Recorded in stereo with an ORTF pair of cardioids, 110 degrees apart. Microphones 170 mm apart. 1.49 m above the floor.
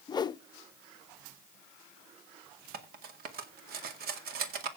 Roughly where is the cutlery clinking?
Right.